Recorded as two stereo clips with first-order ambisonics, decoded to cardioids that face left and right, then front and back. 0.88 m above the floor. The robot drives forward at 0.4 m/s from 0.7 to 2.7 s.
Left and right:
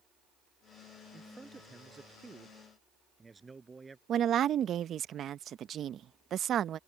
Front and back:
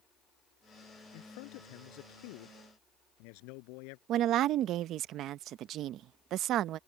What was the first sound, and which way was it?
A man speaking, 10° right.